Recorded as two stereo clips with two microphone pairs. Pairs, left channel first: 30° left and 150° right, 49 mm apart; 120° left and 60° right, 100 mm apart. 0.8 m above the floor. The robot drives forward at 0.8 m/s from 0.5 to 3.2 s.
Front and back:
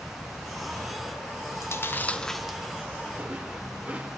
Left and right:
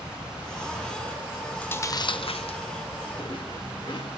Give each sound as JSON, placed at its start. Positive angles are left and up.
{"t": 1.5, "sound": "chewing", "azimuth_deg": 45, "distance_m": 0.7}